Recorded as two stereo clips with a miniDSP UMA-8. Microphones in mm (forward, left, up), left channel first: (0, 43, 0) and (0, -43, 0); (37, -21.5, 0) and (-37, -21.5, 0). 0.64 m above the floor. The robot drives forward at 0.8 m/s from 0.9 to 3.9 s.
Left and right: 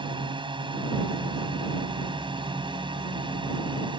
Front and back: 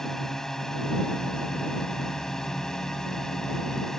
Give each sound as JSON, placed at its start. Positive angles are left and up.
{"t": 0.0, "sound": "a drone", "azimuth_deg": -85}